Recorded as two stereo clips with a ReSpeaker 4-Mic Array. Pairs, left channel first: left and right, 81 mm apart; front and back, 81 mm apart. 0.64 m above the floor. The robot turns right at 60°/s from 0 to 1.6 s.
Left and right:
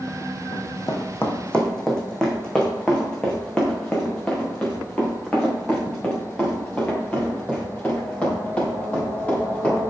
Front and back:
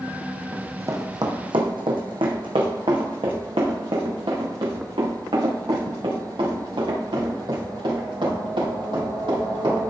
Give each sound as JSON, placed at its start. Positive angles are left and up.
{"t": 0.5, "sound": "running footsteps", "azimuth_deg": 110, "distance_m": 1.7}